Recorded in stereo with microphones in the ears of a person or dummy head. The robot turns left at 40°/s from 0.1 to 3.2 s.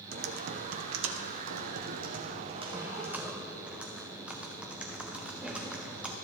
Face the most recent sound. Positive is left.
turn(degrees=-170)